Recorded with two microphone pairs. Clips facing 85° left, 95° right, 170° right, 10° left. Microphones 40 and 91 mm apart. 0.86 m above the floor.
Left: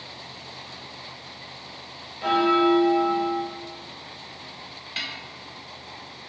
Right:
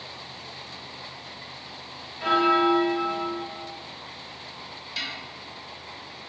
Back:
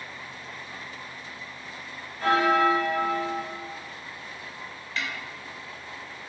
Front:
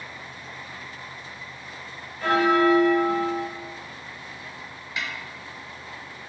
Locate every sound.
2.2 s a bell: 125° right, 1.2 m
5.0 s a snare drum: 75° left, 0.6 m